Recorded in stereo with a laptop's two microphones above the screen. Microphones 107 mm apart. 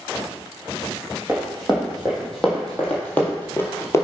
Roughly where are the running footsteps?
Centre.